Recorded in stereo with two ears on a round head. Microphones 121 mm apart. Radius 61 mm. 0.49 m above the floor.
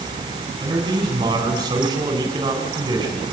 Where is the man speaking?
30° right (ahead or behind), 4.5 m.